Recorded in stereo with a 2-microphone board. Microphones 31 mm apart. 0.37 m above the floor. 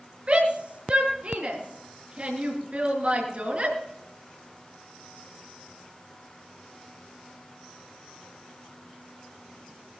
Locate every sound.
0.3 s a shout: 40° right (ahead or behind), 4.5 m